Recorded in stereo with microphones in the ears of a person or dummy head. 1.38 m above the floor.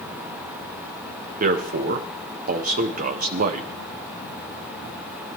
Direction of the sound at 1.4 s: 50° right (ahead or behind).